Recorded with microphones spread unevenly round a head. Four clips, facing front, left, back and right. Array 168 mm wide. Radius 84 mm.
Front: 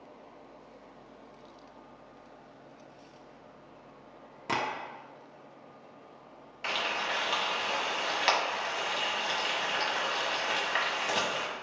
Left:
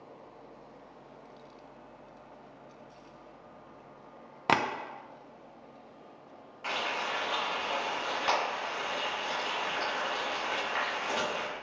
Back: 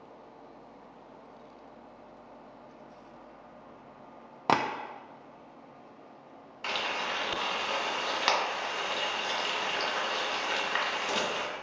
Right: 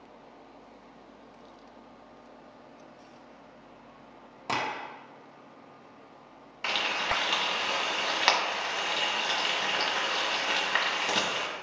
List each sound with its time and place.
4.5 s tapping: 150° left, 0.5 m
6.6 s frying: 100° right, 1.6 m